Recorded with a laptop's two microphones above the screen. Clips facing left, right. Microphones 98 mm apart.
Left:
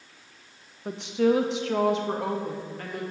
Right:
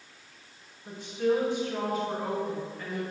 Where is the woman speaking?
65° left (ahead or behind), 0.8 m; by 3.0 s 55° left (ahead or behind), 1.4 m.